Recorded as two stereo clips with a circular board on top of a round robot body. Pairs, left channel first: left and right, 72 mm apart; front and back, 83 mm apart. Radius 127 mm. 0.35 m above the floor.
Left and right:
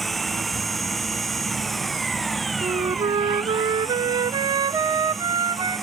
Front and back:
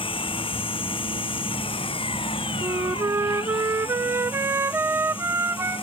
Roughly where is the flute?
Behind right.